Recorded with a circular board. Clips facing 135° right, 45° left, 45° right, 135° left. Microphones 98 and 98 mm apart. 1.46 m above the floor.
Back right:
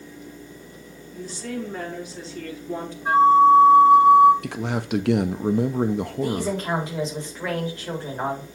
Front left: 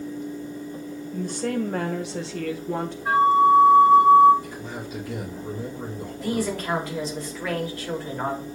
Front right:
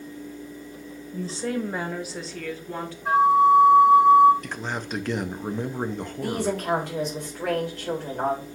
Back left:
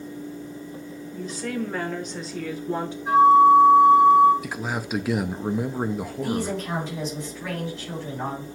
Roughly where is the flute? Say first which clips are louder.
Back right 3 dB, back left 3 dB; ahead right.